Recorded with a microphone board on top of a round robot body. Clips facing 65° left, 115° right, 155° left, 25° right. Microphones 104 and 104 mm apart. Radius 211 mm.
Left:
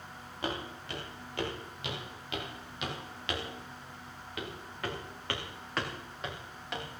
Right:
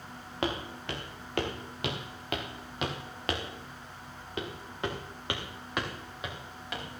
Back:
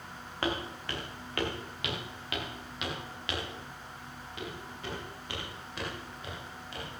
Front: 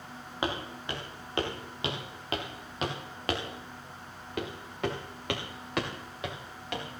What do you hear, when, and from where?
0.4 s footsteps: 95° right, 4.5 m; by 6.8 s 20° right, 4 m